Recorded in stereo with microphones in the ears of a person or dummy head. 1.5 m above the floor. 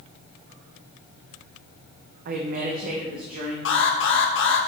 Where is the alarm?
50° left (ahead or behind), 1.3 m.